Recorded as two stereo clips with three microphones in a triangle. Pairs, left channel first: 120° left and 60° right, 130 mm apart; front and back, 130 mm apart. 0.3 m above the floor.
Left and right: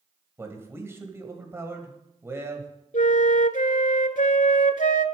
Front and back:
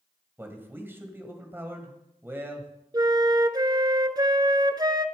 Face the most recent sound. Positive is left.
turn(degrees=120)